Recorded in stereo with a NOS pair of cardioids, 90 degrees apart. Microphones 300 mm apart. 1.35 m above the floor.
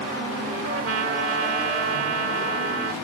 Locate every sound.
0.6 s a trumpet: 45° right, 3 m